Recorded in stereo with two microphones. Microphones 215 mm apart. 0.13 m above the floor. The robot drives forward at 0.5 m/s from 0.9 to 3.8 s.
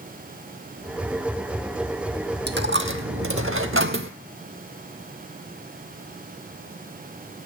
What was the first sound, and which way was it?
A dropped coin, 55° right (ahead or behind).